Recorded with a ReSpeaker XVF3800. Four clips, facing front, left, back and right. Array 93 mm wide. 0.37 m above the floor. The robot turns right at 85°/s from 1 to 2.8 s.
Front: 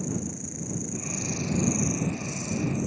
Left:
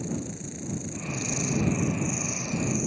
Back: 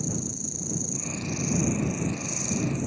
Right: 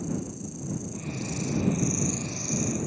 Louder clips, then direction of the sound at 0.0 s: Even, front 1 dB; 60° left.